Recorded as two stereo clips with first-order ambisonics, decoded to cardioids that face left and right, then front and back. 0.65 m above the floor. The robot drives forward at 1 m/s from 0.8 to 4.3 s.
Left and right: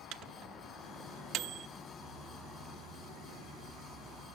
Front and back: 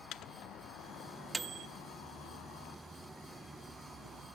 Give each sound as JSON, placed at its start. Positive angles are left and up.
{"t": 0.1, "sound": "a microwave", "azimuth_deg": -45, "distance_m": 0.7}